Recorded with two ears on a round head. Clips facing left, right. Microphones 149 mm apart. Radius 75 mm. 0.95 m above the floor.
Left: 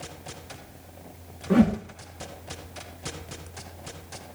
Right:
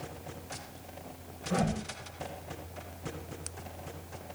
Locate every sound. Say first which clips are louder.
1.5 s a whoosh: left 11 dB; 70° left (ahead or behind), 1.7 m